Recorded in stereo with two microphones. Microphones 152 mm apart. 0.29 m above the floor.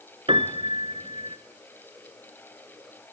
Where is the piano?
35° right (ahead or behind), 1.2 m.